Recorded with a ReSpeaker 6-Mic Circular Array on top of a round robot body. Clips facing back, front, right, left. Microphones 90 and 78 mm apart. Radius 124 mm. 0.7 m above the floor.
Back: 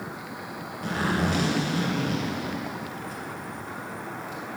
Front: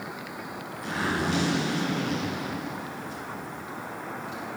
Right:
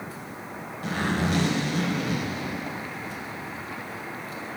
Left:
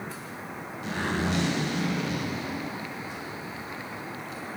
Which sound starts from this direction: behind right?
A zipper, at 0.8 s.